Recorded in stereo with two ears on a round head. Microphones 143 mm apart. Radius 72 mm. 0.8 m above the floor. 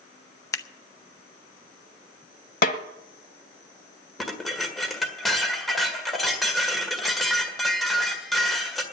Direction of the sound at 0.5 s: 20° left (ahead or behind).